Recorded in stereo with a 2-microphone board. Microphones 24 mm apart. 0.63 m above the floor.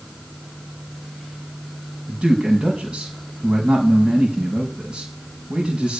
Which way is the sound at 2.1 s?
55° right (ahead or behind).